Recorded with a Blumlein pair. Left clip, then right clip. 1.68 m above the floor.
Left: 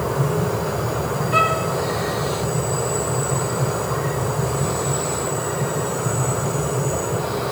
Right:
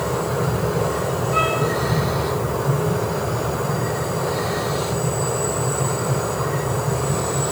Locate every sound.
1.3 s a violin: 20° left, 7 m